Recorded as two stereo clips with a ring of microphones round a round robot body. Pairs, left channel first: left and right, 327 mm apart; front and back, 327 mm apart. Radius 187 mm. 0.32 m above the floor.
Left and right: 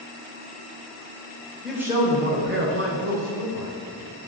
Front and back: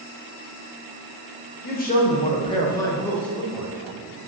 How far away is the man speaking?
About 1.6 m.